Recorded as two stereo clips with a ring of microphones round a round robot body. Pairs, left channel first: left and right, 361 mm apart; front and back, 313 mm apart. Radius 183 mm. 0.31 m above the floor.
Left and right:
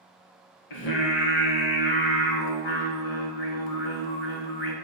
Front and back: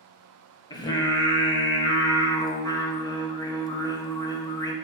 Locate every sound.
0.7 s singing: 75° left, 0.7 m